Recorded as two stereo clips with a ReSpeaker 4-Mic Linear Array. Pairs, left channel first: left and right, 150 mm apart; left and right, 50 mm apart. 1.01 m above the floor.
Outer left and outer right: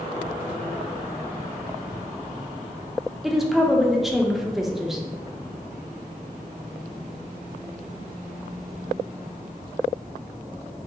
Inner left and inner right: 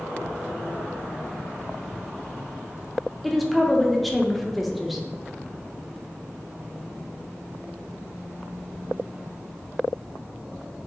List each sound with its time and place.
3.2 s a woman speaking: centre (ahead or behind), 0.5 m